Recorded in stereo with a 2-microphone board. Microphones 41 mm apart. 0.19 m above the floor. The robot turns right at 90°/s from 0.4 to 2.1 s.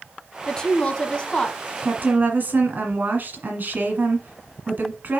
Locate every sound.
0.5 s a woman speaking: 15° left (ahead or behind), 1.1 m; by 1.6 s 20° left (ahead or behind), 1.1 m
1.8 s a woman speaking: 55° right (ahead or behind), 1.6 m; by 5.2 s 45° right (ahead or behind), 1.6 m